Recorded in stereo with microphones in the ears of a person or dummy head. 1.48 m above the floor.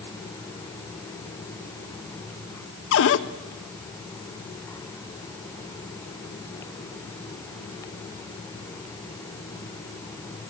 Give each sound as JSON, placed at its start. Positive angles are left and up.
{"t": 2.9, "sound": "a cupboard door", "side_deg": 70, "distance_m": 0.9}